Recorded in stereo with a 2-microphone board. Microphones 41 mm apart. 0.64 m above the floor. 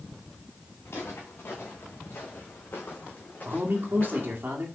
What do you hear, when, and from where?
0.8 s footsteps: 80° left, 3.5 m; by 4.4 s 25° left (ahead or behind), 2.5 m
3.5 s a man speaking: 55° right (ahead or behind), 1.9 m